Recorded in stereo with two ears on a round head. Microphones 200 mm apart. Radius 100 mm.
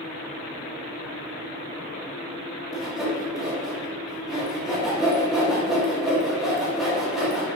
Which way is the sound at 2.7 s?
Centre (ahead or behind).